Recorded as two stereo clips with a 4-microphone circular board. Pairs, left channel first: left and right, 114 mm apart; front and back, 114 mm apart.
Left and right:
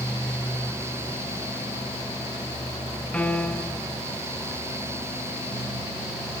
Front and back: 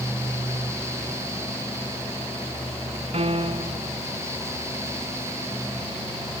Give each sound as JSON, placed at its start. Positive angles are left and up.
{"t": 3.1, "sound": "a piano", "azimuth_deg": 170, "distance_m": 0.8}